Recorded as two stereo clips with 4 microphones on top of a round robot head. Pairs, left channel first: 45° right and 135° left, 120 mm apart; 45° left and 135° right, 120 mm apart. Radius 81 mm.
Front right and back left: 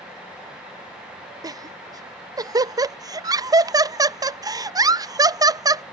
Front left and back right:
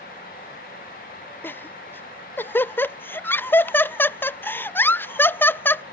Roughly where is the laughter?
Left.